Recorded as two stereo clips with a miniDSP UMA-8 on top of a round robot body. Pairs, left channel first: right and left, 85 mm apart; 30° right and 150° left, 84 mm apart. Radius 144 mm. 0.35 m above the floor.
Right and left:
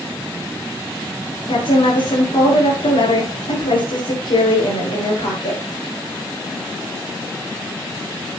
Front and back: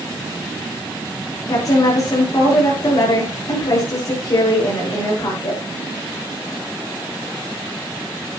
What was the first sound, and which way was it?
A woman speaking, 70° right.